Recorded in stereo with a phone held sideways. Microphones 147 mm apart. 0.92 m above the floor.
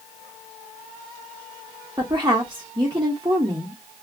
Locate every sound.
2.0 s a woman speaking: 25° right (ahead or behind), 0.9 m